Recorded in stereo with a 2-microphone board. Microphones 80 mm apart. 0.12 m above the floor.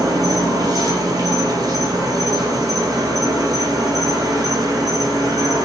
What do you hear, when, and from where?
0.0 s an insect: 50° right (ahead or behind), 0.8 m